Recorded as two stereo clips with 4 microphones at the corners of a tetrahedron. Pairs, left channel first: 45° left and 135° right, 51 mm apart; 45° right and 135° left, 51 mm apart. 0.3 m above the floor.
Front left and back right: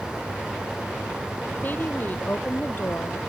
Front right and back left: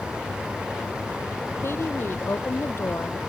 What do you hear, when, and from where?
1.6 s a woman speaking: 10° right